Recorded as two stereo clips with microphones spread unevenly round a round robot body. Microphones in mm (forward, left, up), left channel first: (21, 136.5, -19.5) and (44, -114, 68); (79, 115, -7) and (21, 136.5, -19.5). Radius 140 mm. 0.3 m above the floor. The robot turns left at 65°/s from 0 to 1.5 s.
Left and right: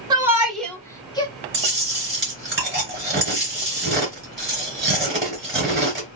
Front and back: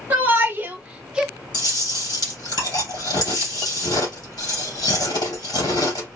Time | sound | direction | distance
0.1 | a shout | straight behind | 1.2 m
1.5 | chewing | 30° right | 3 m